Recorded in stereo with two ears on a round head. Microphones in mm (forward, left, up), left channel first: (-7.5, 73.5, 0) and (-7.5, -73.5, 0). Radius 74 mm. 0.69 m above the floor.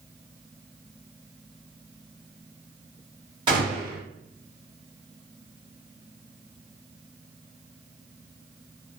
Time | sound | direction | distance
3.5 | a gunshot | 30° right (ahead or behind) | 1.4 m